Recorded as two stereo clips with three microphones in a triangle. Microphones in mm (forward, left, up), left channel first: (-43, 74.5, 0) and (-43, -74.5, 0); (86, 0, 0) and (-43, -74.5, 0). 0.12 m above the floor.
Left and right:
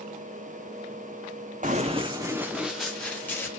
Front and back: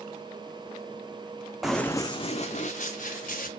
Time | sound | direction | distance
1.6 | running footsteps | 65° right | 0.6 m